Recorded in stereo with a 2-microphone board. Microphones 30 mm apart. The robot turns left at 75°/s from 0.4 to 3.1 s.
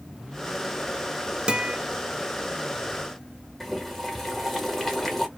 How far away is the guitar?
About 0.6 m.